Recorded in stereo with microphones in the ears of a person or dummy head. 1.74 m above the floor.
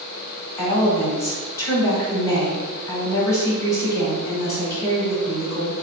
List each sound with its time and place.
0.6 s a woman speaking: 25° left (ahead or behind), 1.3 m